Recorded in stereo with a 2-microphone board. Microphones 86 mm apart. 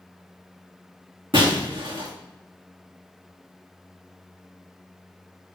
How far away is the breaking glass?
About 2.5 m.